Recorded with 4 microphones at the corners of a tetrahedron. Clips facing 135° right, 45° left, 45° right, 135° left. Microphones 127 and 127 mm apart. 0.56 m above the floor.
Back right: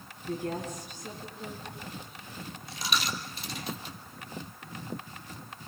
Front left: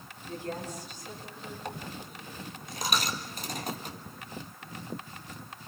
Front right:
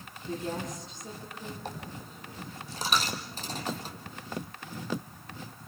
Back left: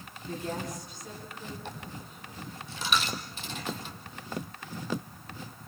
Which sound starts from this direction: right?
A woman speaking, at 0.3 s.